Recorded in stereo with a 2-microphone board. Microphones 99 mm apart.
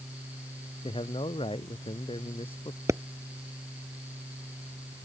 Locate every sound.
0.8 s a man speaking: 65° left (ahead or behind)
2.9 s a pop: 30° right (ahead or behind)